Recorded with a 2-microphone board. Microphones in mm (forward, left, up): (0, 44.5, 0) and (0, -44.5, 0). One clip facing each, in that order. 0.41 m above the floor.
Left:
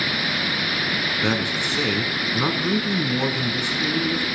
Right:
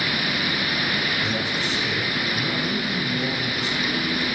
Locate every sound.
1.2 s a man speaking: 75° left (ahead or behind), 4 m